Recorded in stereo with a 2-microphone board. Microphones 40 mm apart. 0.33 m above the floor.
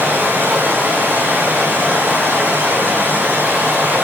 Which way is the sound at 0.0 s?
65° right (ahead or behind).